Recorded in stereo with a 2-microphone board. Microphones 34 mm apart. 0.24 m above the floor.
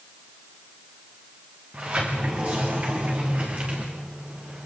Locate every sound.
1.7 s a sliding door: 45° right (ahead or behind), 6.5 m